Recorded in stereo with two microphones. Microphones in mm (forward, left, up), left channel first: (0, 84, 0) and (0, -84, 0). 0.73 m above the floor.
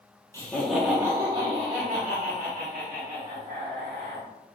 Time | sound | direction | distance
0.3 | laughter | 15° left (ahead or behind) | 0.6 m